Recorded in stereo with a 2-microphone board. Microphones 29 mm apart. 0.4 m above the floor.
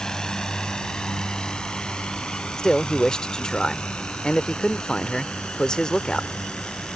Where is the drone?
30° left (ahead or behind); by 7.0 s 50° left (ahead or behind).